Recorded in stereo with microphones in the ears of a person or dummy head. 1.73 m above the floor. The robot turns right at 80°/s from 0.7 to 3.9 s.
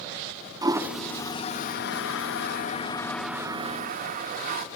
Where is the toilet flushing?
25° right (ahead or behind), 0.9 m; by 4.7 s 50° right (ahead or behind), 0.9 m.